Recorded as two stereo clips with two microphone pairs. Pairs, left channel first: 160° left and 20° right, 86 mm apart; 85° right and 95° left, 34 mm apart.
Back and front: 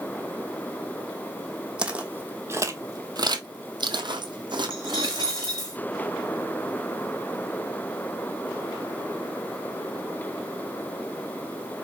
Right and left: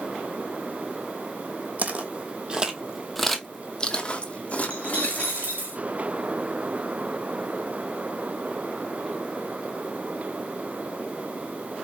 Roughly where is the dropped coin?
Behind left.